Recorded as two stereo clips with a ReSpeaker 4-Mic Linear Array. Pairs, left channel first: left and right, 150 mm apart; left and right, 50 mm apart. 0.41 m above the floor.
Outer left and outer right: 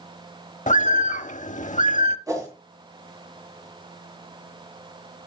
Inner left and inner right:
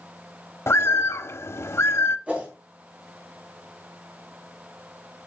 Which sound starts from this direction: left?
A bird, at 0.7 s.